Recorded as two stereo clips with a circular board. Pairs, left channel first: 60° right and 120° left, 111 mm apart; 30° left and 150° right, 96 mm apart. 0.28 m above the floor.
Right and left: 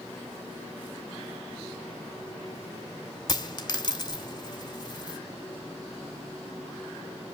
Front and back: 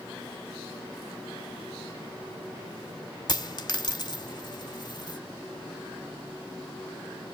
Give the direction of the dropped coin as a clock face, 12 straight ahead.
12 o'clock.